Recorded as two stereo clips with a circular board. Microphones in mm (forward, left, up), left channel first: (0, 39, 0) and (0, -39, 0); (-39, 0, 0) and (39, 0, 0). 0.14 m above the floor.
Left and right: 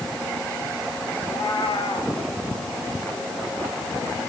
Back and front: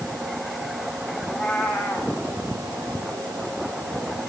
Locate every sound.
1.2 s a cat meowing: 95° left, 5 m